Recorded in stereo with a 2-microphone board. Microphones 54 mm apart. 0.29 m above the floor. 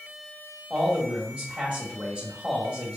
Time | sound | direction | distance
0.7 | a man speaking | 20° right (ahead or behind) | 1.1 m